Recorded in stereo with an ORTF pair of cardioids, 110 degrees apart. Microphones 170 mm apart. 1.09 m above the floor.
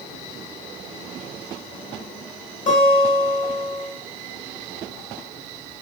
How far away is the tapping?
No tapping in this recording.